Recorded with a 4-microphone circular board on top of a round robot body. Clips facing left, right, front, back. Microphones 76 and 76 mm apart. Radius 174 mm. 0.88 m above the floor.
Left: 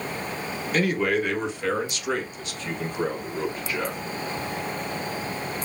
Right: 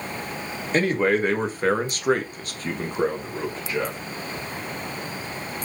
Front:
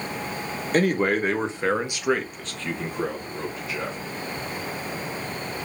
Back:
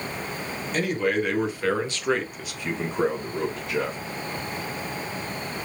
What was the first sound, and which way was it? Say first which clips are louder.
A man speaking: right 3 dB, front 3 dB; 35° right.